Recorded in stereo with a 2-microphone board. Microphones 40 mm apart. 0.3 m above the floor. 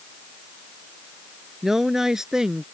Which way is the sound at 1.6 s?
10° right (ahead or behind).